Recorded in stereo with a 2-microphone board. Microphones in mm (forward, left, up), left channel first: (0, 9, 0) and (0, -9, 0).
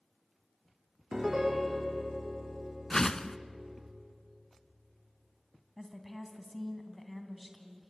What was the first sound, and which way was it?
A piano, 10° right (ahead or behind).